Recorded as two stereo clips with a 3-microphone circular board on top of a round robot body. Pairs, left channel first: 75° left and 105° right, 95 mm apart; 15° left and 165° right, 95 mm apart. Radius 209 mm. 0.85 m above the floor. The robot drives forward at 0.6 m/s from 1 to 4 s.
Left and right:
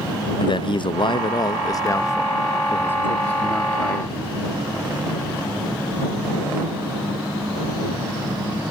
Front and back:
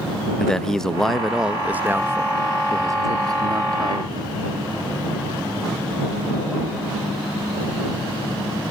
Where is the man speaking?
100° left; by 4.4 s 155° left.